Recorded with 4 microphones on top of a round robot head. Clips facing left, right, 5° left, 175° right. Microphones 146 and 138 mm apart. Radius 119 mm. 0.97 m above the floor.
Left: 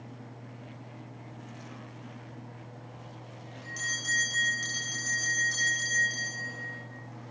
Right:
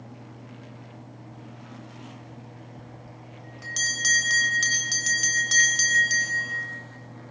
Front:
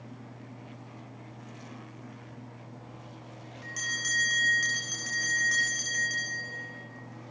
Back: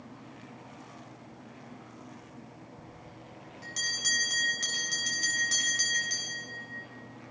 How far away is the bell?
About 3.5 m.